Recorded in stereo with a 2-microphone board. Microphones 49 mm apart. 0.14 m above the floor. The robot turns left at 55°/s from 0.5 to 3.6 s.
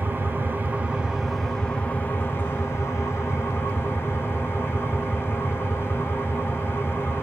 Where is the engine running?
135° right, 2.5 m; by 7.2 s 55° left, 2.5 m.